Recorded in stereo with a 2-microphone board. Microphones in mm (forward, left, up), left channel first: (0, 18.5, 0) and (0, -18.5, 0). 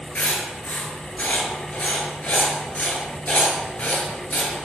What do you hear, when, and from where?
0.1 s writing: 45° left (ahead or behind), 1.0 m